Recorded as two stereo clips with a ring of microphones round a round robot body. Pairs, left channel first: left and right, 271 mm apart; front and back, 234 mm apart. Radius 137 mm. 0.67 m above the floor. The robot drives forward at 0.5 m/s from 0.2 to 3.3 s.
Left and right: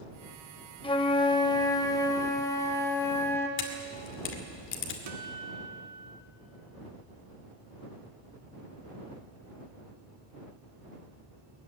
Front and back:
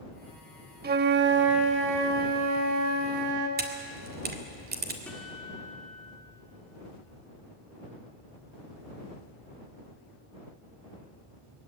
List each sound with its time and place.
0.8 s a flute: 155° left, 1.1 m; by 3.5 s 170° left, 2 m
3.6 s a camera shutter: 135° left, 2.5 m
5.1 s a guitar: 85° right, 1.6 m